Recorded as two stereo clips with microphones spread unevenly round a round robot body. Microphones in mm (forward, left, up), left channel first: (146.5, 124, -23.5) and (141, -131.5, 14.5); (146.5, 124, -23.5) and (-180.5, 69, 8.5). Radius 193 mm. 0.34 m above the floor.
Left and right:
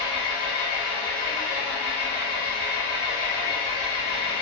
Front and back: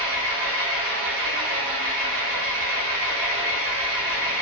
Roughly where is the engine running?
Behind.